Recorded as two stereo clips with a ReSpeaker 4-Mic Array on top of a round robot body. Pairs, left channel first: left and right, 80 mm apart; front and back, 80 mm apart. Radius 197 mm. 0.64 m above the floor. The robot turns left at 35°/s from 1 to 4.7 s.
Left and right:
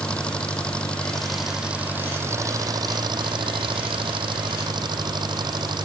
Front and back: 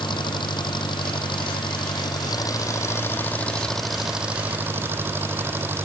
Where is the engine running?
15° left; by 5.8 s 115° right.